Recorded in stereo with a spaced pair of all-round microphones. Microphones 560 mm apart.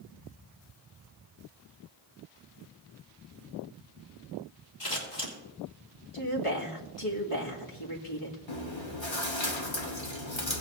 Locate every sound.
4.8 s scissors: 70° left (ahead or behind), 3 m
6.1 s a woman speaking: 65° left (ahead or behind), 2.5 m
8.5 s chewing: 55° left (ahead or behind), 1.4 m